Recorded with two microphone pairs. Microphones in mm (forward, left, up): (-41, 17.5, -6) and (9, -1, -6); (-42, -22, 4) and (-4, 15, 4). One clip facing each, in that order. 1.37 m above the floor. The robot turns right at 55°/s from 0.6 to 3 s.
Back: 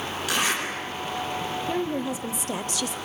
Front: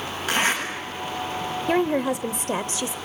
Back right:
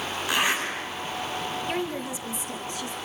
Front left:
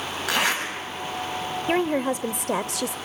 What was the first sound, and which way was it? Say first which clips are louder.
A zipper: front 3 dB, front left 1 dB; 35° left.